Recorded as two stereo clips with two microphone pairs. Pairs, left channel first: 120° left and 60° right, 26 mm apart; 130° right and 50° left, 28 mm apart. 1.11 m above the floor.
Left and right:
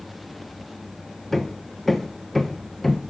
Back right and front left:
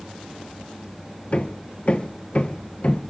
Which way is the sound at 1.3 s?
165° right.